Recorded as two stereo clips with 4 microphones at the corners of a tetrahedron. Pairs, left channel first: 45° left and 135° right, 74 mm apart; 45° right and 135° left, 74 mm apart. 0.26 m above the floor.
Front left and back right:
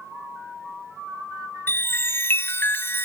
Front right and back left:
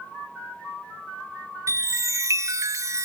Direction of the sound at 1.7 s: 100° left.